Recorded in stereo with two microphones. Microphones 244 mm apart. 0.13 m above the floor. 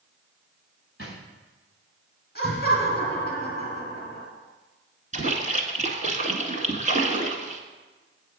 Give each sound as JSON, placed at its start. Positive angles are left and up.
{"t": 1.0, "sound": "a drawer", "side_deg": -50, "distance_m": 5.0}
{"t": 2.4, "sound": "laughter", "side_deg": 40, "distance_m": 2.5}
{"t": 5.1, "sound": "a splash", "side_deg": -30, "distance_m": 1.3}